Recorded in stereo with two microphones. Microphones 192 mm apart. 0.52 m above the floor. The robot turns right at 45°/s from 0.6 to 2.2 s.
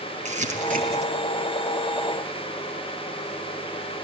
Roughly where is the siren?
No siren in this recording.